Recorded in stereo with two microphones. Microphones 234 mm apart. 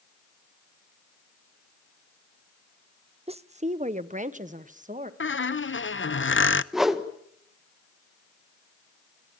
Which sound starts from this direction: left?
A squeak, at 5.2 s.